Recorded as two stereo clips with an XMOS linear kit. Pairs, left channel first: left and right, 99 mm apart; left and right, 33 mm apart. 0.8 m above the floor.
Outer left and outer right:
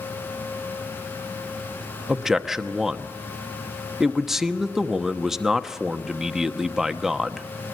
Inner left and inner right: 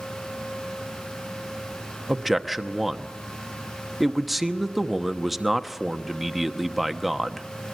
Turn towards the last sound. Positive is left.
turn(degrees=-5)  # may be behind; listen again after turning